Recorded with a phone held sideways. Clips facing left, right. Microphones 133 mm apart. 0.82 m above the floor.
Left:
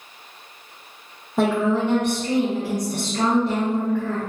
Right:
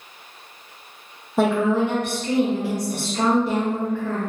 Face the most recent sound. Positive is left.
turn(degrees=0)  # may be behind; listen again after turning